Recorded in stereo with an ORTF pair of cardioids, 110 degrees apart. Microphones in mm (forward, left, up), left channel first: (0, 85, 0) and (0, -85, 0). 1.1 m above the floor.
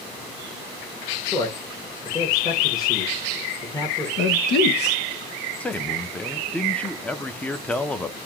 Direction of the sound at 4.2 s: 65° left.